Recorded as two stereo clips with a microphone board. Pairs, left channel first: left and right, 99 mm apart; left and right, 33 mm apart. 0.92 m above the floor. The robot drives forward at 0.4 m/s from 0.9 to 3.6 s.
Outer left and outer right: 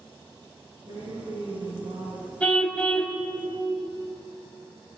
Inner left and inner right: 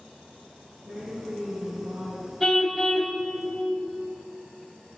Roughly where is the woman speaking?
Right.